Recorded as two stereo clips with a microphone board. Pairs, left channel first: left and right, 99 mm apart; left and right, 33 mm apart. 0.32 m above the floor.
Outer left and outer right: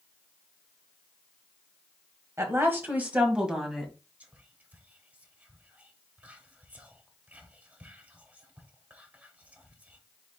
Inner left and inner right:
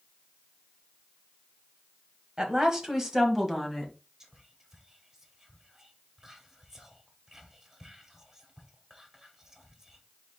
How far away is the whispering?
About 1.1 m.